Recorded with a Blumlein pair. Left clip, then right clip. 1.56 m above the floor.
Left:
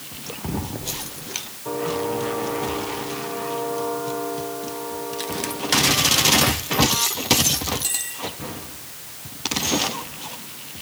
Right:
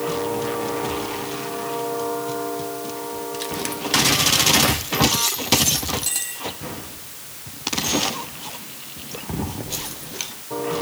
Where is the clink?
No clink in this recording.